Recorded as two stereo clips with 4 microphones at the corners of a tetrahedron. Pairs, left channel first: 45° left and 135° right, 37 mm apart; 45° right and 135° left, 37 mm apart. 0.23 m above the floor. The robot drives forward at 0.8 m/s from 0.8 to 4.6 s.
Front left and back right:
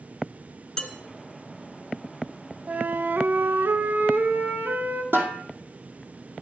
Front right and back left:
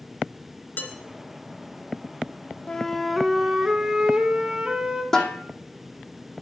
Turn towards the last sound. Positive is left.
turn(degrees=-125)